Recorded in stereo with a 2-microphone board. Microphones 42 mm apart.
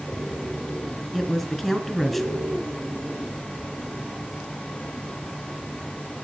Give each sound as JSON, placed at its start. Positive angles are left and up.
{"t": 1.1, "sound": "a woman speaking", "side_deg": 5, "distance_m": 2.0}